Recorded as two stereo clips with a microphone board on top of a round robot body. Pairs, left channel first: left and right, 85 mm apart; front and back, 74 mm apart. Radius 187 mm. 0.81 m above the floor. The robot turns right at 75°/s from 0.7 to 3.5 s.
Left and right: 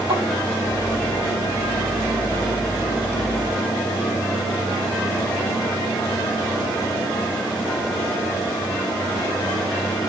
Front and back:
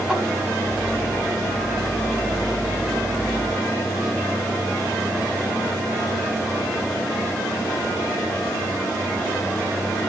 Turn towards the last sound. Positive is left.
turn(degrees=115)